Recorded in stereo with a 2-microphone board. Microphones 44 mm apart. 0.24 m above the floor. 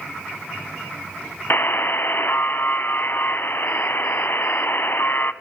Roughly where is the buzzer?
Left.